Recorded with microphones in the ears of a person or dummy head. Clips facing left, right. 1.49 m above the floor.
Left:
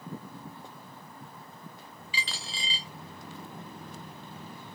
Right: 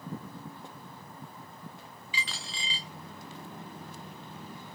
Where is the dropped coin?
35° left (ahead or behind), 1.1 m.